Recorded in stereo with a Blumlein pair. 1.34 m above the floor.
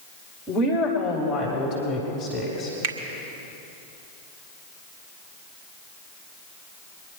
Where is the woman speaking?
15° left, 2.5 m; by 2.7 s 20° left, 4 m.